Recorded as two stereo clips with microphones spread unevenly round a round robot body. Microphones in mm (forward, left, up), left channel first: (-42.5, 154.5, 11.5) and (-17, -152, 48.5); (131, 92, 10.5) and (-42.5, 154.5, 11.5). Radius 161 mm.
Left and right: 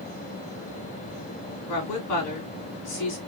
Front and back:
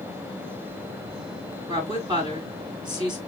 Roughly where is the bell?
No bell in this recording.